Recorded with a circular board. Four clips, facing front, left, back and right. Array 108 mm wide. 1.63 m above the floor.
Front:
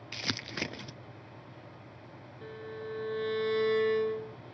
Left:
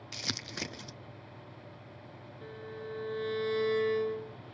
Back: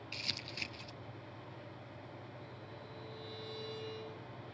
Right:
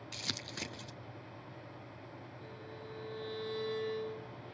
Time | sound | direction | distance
0.1 | crumpling | 10° left | ?
2.4 | a violin | 25° left | ?